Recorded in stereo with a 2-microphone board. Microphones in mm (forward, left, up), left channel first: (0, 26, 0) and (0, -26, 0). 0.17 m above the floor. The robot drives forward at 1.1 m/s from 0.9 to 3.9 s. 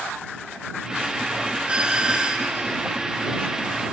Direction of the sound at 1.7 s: 20° right (ahead or behind).